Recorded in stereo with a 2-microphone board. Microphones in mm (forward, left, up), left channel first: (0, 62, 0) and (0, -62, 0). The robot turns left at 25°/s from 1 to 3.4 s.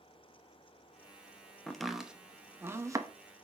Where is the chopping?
5° left (ahead or behind), 0.9 m; by 3.1 s 30° right (ahead or behind), 0.9 m.